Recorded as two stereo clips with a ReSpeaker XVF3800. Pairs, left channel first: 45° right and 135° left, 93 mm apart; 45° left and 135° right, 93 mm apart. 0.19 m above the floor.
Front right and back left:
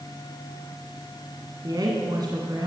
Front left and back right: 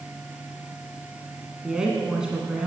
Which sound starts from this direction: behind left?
A woman speaking, at 1.6 s.